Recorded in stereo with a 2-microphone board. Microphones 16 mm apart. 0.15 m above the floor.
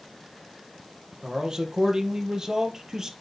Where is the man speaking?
55° right (ahead or behind), 3.5 m; by 3.1 s 45° right (ahead or behind), 2.5 m.